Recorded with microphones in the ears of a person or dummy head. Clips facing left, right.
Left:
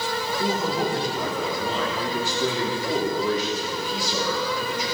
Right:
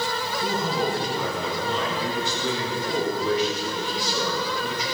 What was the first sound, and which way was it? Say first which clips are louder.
A man speaking: left 1 dB; 40° left (ahead or behind).